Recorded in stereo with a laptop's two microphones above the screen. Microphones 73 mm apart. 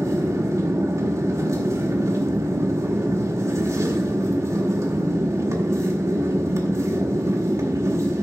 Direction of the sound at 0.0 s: 45° right (ahead or behind).